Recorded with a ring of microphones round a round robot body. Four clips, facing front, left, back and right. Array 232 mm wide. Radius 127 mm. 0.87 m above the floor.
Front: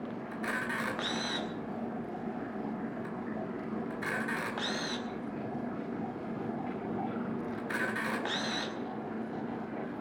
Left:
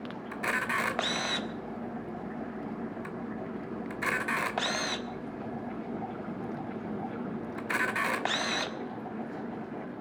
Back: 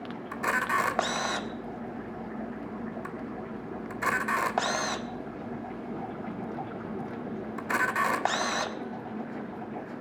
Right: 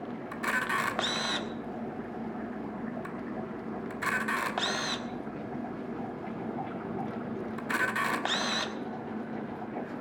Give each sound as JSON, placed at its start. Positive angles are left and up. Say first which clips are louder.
{"t": 0.3, "sound": "a camera shutter", "louder": "even, back 9 dB", "azimuth_deg": 160, "distance_m": 1.5}